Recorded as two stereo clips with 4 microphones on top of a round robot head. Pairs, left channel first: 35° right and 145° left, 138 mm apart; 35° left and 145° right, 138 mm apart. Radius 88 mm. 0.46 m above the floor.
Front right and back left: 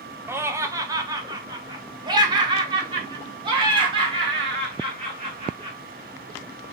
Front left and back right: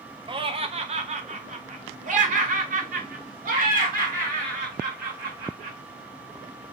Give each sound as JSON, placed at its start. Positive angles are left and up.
{"t": 0.3, "sound": "laughter", "azimuth_deg": -155, "distance_m": 1.0}